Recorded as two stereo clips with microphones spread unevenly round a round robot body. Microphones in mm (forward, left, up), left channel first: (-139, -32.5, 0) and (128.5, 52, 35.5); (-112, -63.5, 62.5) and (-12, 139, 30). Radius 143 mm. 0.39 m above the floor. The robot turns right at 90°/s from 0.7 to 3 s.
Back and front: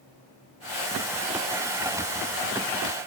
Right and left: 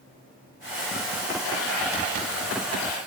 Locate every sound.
Only background noise.